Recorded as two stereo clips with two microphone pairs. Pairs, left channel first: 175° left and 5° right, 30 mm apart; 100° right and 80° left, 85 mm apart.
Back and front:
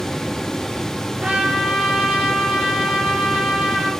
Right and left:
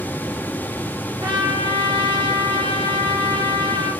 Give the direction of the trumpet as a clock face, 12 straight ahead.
10 o'clock.